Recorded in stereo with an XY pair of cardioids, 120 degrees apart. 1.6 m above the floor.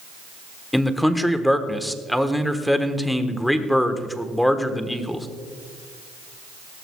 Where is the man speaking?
5° left, 1.2 m.